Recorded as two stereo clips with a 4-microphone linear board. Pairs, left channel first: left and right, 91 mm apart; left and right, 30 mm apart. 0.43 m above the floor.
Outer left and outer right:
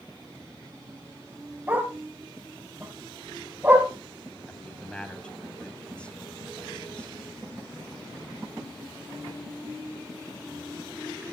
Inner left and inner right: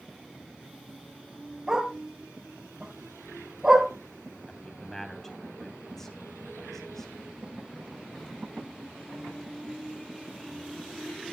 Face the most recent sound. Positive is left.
turn(degrees=10)  # may be behind; listen again after turning